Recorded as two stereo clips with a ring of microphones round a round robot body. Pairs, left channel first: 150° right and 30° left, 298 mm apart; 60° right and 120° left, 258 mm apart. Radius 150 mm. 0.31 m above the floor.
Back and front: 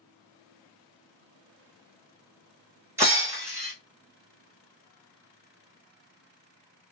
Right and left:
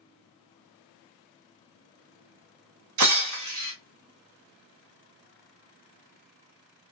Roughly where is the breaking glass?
Left.